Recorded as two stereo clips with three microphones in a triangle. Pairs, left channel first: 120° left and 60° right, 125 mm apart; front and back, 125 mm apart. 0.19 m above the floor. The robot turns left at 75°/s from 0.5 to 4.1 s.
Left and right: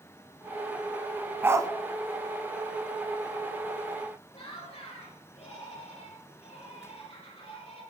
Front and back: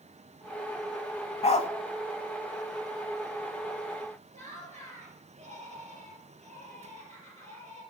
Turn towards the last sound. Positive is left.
turn(degrees=155)